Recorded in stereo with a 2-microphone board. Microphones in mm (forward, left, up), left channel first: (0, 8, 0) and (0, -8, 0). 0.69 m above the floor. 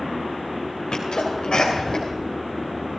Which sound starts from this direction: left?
A sneeze, at 0.9 s.